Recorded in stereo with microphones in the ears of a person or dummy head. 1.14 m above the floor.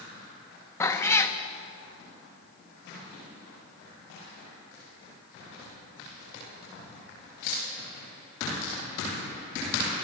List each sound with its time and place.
0.8 s a cat meowing: 20° left (ahead or behind), 0.7 m